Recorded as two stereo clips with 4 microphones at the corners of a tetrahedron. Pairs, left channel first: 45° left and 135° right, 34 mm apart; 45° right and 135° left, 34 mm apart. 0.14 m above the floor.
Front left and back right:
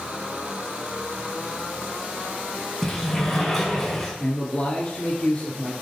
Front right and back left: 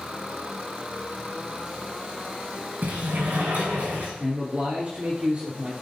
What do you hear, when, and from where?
2.8 s a sliding door: 125° left, 5 m
4.2 s a man speaking: 100° left, 2 m